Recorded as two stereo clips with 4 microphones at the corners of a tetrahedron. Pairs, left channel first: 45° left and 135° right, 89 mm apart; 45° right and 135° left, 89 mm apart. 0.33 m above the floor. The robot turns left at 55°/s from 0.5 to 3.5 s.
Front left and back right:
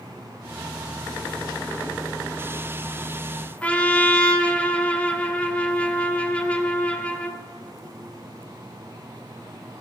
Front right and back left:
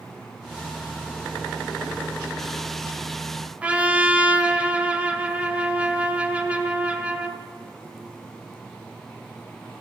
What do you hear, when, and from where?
3.6 s a trumpet: 90° left, 1.5 m